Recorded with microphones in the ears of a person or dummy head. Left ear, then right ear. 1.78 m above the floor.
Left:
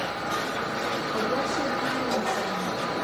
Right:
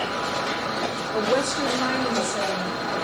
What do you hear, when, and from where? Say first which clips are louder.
1.1 s a woman speaking: right 6 dB; 55° right (ahead or behind), 0.9 m; by 3.0 s 20° right (ahead or behind), 1.5 m